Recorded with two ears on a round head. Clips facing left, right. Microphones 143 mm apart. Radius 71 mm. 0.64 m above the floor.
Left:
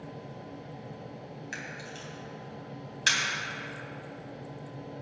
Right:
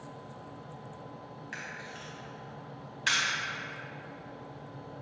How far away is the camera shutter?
About 3.5 m.